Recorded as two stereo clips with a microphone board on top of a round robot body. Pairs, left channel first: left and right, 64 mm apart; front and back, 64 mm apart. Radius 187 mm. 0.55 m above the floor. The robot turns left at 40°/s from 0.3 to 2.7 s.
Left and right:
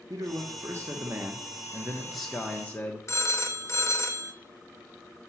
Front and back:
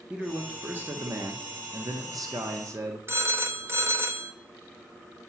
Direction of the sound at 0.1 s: 105° right.